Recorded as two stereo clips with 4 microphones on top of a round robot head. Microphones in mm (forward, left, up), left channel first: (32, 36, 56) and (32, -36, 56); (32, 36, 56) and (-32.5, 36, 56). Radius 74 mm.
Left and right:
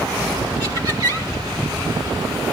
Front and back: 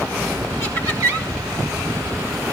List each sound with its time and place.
0.6 s laughter: 135° right, 6 m